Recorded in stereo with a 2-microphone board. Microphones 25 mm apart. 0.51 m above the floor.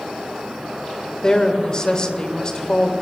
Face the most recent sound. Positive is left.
turn(degrees=30)  # may be behind; listen again after turning